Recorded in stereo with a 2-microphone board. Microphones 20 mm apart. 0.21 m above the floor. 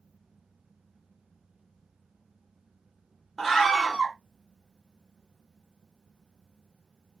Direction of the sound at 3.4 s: 5° right (ahead or behind).